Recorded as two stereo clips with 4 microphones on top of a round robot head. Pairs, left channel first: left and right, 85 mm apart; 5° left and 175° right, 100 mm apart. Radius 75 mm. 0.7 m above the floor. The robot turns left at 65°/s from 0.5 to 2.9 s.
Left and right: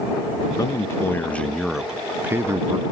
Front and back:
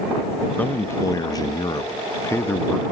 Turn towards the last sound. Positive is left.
turn(degrees=-80)